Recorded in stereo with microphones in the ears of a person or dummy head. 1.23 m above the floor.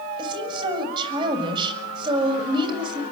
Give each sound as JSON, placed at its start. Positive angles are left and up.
{"t": 0.2, "sound": "a woman speaking", "side_deg": -30, "distance_m": 7.5}